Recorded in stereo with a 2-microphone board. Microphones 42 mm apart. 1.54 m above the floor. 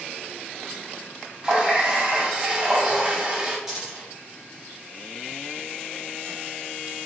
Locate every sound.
1.4 s a running tap: 20° right (ahead or behind), 0.6 m
3.7 s a dropped coin: 5° right (ahead or behind), 1.5 m